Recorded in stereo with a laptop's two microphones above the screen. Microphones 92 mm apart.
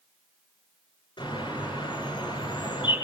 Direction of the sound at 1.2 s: 55° left (ahead or behind).